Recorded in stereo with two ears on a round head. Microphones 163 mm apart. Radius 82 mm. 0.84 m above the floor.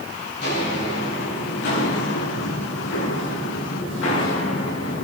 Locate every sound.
0.4 s footsteps: 60° left (ahead or behind), 6.5 m; by 5.0 s 80° left, 5 m